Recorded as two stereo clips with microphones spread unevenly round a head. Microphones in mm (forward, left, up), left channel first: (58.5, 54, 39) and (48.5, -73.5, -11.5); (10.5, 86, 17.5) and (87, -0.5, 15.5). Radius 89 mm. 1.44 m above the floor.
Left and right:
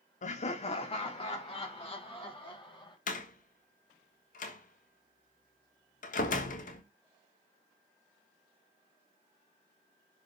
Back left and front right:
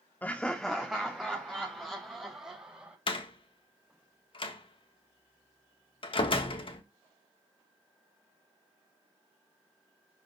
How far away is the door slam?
About 1.4 m.